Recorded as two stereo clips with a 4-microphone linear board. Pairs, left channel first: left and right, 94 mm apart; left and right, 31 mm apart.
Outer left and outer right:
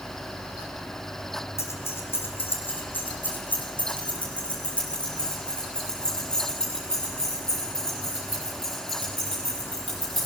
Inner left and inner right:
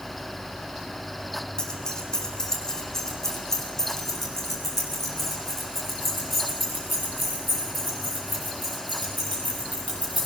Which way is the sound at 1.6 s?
30° left (ahead or behind).